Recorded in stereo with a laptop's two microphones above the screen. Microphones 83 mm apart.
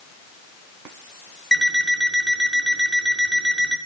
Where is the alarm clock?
5° left (ahead or behind), 7.5 m.